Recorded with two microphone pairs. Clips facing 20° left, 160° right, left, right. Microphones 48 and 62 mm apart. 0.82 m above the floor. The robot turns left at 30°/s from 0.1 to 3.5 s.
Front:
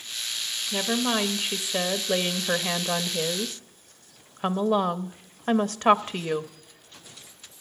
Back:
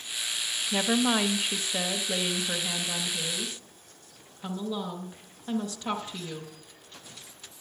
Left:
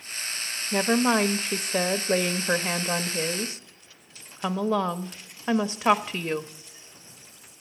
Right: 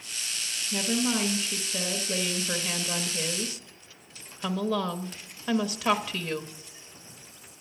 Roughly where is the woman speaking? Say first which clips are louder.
Even, left 6 dB; behind left.